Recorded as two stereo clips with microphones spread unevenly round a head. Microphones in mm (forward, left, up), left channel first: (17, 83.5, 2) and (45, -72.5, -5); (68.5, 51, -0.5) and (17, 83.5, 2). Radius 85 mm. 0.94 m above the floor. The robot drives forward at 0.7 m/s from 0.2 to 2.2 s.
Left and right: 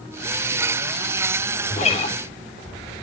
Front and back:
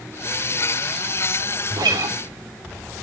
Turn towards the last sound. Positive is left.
turn(degrees=160)